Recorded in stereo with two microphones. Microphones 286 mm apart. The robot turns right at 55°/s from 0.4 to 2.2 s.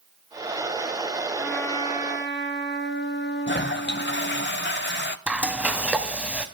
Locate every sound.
1.4 s a trumpet: 5° right, 1.7 m; by 4.5 s 40° left, 1.7 m
3.5 s a toilet flushing: 40° left (ahead or behind), 0.6 m
5.3 s frying: 5° right (ahead or behind), 1.2 m